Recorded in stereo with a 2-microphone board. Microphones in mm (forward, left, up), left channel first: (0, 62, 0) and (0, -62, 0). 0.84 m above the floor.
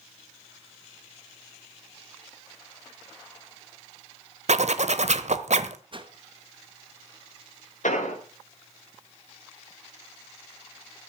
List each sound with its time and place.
4.5 s a zipper: 65° right (ahead or behind), 1.1 m
5.9 s a whoosh: 45° right (ahead or behind), 1.2 m
7.8 s an explosion: 80° left, 3.5 m